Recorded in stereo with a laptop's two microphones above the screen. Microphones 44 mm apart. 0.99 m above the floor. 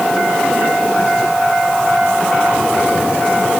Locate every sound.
Only background noise.